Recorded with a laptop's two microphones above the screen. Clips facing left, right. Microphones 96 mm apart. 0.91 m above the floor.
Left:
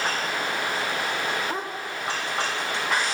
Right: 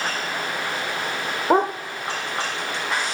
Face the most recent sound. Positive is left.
turn(degrees=-75)  # may be behind; listen again after turning